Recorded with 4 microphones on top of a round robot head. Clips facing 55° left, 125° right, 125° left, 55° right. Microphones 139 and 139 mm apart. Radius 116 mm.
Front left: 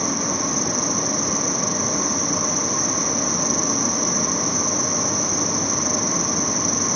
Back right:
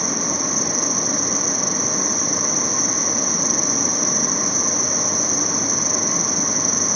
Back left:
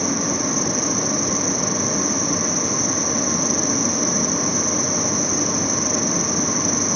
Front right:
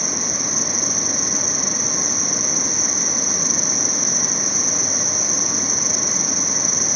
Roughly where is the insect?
Right.